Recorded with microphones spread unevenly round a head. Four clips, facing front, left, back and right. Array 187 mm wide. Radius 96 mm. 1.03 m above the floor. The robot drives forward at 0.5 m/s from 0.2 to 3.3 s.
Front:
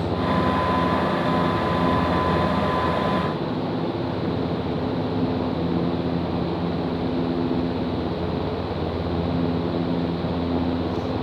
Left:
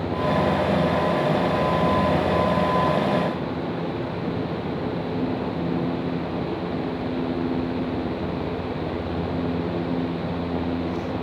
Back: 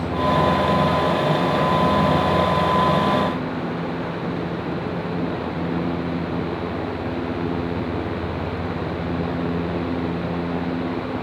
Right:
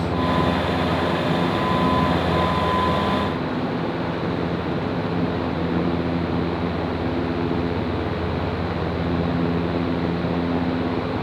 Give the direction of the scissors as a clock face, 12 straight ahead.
No scissors in this recording.